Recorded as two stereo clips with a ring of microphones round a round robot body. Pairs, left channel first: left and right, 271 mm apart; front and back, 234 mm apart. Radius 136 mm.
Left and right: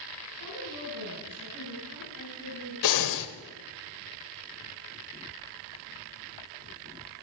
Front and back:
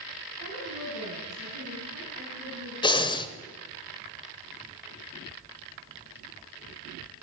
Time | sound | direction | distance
0.4 | a woman speaking | 135° left | 5 m
2.8 | breathing | 70° left | 1.0 m